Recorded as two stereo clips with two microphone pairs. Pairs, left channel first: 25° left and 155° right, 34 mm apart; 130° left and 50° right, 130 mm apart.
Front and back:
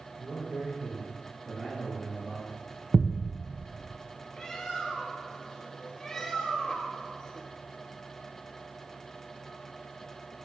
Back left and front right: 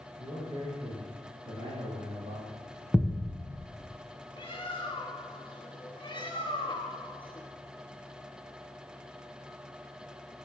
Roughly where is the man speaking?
Right.